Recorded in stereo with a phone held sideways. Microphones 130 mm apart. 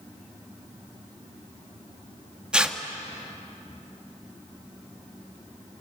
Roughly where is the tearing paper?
Centre.